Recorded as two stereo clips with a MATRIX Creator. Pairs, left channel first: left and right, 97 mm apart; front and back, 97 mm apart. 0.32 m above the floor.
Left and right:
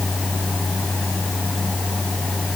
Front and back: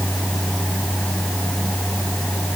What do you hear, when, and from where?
Only background noise.